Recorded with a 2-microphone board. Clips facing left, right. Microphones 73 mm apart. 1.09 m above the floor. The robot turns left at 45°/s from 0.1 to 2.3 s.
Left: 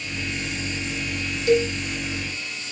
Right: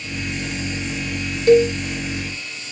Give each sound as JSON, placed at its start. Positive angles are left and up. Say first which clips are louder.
{"t": 1.5, "sound": "a cowbell", "louder": "right 7 dB", "side_deg": -50, "distance_m": 1.6}